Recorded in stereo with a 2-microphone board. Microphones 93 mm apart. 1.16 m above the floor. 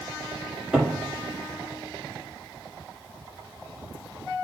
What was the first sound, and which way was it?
A cupboard door, 10° right (ahead or behind).